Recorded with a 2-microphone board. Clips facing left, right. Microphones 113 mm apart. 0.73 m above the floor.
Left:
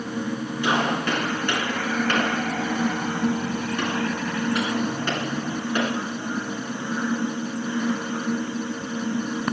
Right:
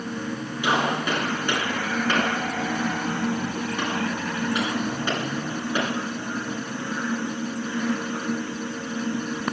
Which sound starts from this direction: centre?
A gunshot, at 0.6 s.